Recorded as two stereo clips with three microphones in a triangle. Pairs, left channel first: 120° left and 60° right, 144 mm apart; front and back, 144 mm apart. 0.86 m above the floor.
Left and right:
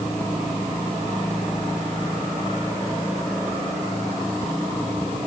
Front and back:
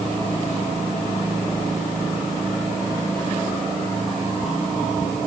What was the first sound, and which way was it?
Only background noise.